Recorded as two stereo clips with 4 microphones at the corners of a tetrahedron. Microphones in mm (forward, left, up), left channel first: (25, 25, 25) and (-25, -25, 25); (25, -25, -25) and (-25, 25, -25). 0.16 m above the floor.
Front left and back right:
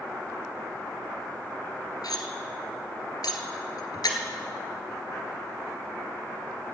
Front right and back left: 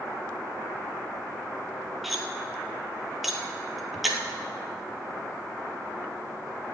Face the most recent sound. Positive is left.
turn(degrees=45)